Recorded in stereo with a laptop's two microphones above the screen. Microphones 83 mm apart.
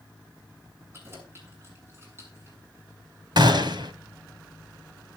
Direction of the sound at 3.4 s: 65° right (ahead or behind).